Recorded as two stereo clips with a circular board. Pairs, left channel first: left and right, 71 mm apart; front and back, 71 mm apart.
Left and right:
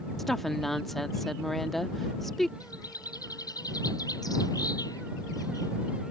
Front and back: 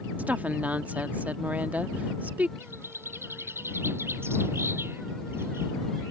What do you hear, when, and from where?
0.2 s a woman speaking: 170° left
2.6 s a bird: 120° left